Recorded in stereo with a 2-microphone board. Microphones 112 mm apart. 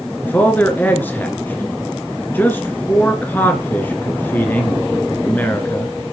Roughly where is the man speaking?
Centre.